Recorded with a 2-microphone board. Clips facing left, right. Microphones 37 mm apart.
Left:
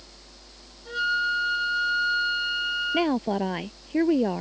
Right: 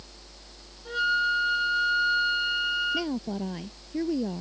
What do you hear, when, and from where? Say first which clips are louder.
0.8 s a flute: even; centre (ahead or behind)
2.9 s a woman speaking: left 6 dB; 50° left (ahead or behind)